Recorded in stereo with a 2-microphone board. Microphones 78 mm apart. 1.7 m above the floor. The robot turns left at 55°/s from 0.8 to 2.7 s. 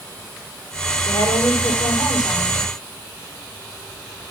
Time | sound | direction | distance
1.1 | a woman speaking | 105° left | 6 m